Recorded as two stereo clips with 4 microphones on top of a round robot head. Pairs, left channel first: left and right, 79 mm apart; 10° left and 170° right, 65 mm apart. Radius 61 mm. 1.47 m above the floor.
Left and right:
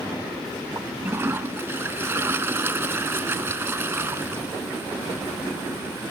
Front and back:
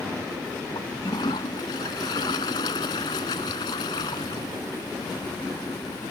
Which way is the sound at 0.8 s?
30° right.